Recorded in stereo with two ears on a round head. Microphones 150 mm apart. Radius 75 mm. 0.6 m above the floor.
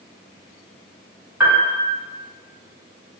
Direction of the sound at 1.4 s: 10° right (ahead or behind).